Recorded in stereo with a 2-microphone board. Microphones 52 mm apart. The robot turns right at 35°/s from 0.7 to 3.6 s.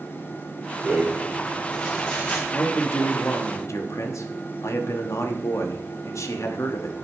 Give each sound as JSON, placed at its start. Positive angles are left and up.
{"t": 0.8, "sound": "a rattle", "azimuth_deg": -30, "distance_m": 5.5}
{"t": 2.5, "sound": "a man speaking", "azimuth_deg": 40, "distance_m": 1.1}